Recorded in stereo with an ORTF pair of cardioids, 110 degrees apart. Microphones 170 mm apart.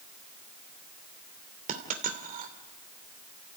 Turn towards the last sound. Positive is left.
turn(degrees=-55)